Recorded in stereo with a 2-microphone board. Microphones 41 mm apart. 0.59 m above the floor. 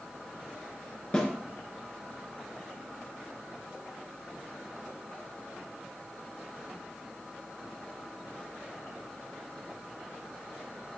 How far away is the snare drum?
About 4 m.